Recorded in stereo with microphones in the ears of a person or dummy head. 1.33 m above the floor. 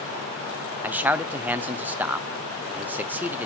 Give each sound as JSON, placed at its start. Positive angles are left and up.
{"t": 0.8, "sound": "a man speaking", "side_deg": -15, "distance_m": 0.6}